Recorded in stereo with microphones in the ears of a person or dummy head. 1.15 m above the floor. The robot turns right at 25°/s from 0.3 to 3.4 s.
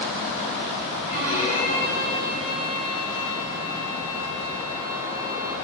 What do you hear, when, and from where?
1.1 s a violin: 75° right, 1.8 m; by 5.5 s 20° right, 1.8 m